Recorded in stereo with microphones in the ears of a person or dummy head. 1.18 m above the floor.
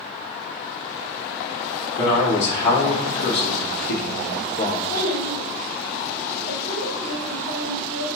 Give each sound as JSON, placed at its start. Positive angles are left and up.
{"t": 2.0, "sound": "a man speaking", "side_deg": 70, "distance_m": 2.0}
{"t": 4.9, "sound": "a child speaking", "side_deg": 65, "distance_m": 1.7}